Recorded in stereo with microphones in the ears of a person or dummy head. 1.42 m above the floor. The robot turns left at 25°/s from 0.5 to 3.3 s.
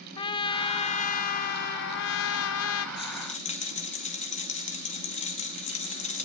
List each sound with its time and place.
0.2 s a trumpet: 155° left, 0.8 m; by 2.9 s 95° left, 0.8 m
3.0 s a rattle: 25° left (ahead or behind), 1.8 m; by 6.3 s 30° left (ahead or behind), 1.8 m